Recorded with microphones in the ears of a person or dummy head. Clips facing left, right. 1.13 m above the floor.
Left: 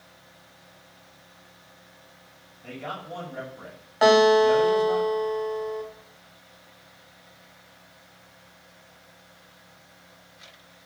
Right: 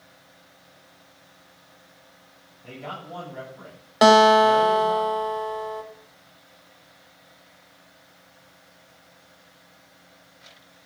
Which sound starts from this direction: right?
A guitar, at 4.0 s.